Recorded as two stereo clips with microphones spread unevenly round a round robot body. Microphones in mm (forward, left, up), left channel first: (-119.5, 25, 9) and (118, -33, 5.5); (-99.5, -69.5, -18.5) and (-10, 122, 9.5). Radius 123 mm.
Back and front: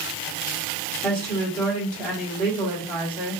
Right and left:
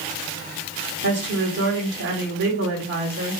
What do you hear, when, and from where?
1.0 s a woman speaking: 95° left, 2 m